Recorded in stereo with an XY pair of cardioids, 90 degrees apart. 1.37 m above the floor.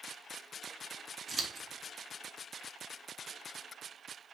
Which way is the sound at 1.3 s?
40° right.